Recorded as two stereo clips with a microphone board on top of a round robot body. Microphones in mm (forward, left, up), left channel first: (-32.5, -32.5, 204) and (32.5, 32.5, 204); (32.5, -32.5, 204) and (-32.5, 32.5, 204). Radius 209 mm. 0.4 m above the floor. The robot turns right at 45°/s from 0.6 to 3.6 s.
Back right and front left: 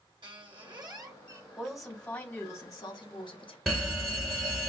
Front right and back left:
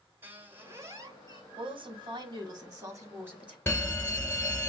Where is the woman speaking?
125° left, 1.3 m; by 3.6 s 145° right, 1.3 m.